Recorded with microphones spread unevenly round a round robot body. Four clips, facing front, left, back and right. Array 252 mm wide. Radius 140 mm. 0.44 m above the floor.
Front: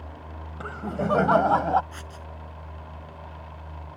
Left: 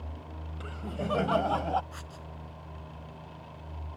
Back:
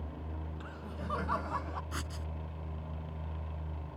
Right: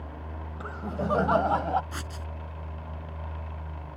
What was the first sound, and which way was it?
Laughter, 20° right.